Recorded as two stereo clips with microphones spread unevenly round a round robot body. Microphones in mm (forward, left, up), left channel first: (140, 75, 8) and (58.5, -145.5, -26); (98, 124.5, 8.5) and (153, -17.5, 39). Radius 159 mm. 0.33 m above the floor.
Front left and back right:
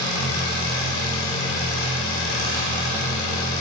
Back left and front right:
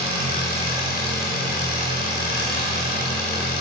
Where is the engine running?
100° left, 1.7 m.